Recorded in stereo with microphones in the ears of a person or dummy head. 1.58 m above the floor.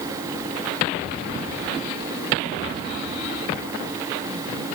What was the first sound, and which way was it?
Only background noise.